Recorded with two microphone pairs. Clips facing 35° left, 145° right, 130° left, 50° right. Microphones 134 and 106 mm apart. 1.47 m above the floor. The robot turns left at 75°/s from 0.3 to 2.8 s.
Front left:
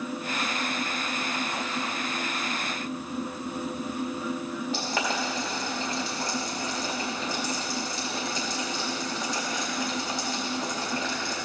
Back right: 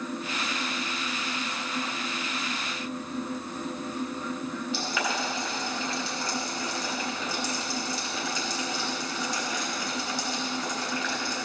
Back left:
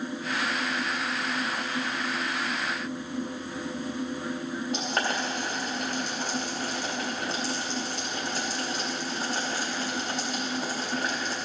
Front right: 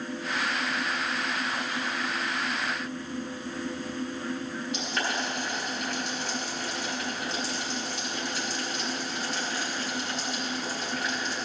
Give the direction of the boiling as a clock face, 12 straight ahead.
9 o'clock.